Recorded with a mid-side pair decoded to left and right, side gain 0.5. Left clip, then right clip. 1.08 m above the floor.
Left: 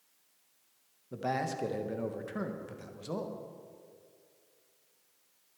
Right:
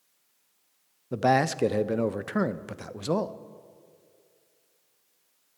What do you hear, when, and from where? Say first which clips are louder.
1.1 s a man speaking: right 10 dB; 60° right, 0.5 m